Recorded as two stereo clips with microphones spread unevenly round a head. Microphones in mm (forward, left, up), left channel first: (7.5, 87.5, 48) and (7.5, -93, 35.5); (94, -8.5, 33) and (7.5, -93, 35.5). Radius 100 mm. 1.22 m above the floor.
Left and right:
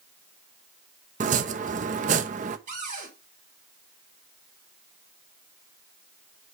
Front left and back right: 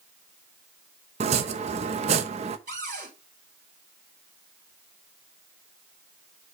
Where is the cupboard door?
140° right, 4.5 m.